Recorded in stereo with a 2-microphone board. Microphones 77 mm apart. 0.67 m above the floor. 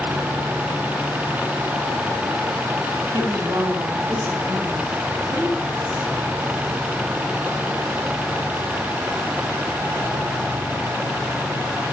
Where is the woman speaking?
60° right (ahead or behind), 1.8 m; by 6.1 s 15° right (ahead or behind), 4.5 m.